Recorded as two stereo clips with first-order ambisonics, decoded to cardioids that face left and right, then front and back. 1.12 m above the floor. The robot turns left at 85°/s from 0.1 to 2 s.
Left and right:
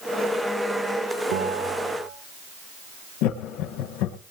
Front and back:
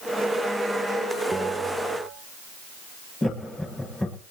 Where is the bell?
90° right, 5 m; by 2.1 s 145° right, 5 m.